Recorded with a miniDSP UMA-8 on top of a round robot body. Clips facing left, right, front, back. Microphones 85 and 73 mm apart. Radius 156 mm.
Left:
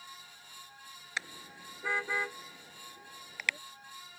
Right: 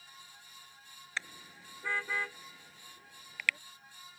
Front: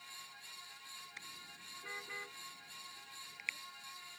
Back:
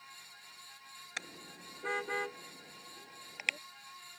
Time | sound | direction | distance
1.2 | a car horn | 165° left | ?